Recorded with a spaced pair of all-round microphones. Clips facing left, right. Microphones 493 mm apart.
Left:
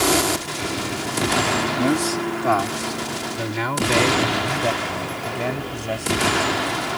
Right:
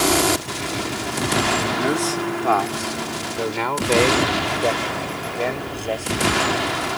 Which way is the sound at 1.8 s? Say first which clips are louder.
Left 3 dB; 45° left (ahead or behind).